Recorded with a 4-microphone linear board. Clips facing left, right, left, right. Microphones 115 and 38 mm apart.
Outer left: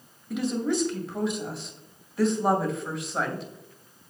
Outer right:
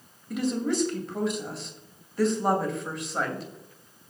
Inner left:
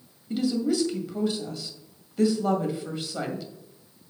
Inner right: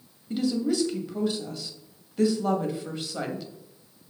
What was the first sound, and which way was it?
A woman speaking, centre (ahead or behind).